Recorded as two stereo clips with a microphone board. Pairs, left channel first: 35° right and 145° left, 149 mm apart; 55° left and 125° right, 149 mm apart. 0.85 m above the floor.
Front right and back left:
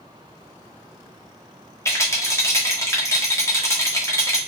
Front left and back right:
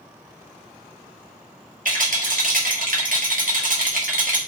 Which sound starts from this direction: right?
A rattle, at 1.9 s.